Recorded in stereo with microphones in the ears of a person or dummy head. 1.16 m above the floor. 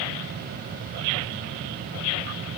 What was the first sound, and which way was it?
Only background noise.